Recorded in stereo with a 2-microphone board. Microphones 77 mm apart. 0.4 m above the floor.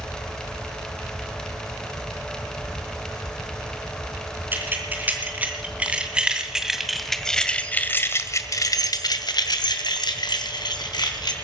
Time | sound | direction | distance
4.5 | keys jangling | 25° right (ahead or behind) | 3.5 m